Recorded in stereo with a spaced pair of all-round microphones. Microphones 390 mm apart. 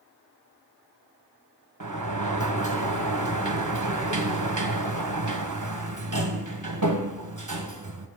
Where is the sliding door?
50° right (ahead or behind), 1.0 m.